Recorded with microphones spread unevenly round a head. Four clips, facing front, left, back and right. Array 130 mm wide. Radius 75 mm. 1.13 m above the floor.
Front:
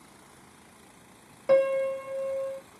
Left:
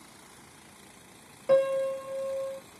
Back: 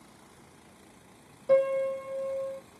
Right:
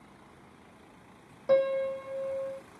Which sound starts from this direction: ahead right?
A piano, at 1.5 s.